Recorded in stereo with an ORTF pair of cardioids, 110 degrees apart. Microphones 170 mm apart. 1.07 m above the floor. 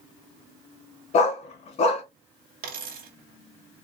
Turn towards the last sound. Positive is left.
turn(degrees=-60)